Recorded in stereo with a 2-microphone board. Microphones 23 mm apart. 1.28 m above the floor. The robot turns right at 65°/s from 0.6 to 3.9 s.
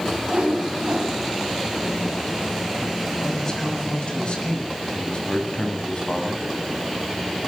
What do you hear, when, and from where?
0.3 s a whoosh: 130° right, 6.5 m; by 1.2 s 90° right, 6.5 m
3.2 s a man speaking: 5° left, 7.5 m; by 6.4 s 50° left, 7.5 m